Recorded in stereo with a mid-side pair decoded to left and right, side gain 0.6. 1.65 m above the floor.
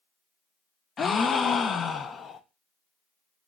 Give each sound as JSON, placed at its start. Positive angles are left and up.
{"t": 1.0, "sound": "a gasp", "azimuth_deg": 35, "distance_m": 0.5}